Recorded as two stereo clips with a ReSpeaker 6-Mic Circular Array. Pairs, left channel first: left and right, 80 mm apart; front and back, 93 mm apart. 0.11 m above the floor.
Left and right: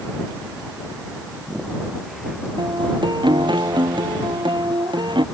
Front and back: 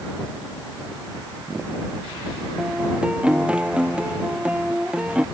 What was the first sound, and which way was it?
A guitar, 100° right.